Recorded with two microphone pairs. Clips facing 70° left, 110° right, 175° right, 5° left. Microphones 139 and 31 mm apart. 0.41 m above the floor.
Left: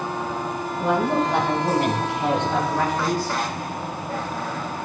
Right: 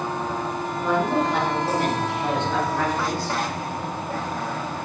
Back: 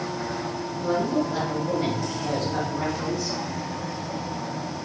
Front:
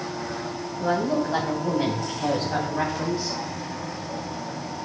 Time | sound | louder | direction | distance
0.8 | a woman speaking | left 1 dB, front 1 dB | 25° left | 3.5 m